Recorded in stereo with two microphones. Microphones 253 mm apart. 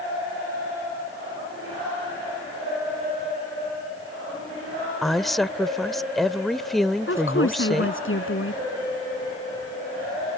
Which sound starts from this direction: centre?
A woman speaking, at 5.0 s.